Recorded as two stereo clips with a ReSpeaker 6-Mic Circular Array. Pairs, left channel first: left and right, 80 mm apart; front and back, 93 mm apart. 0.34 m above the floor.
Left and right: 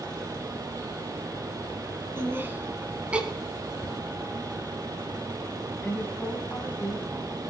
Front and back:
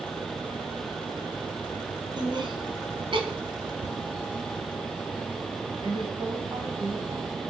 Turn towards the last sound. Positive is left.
turn(degrees=160)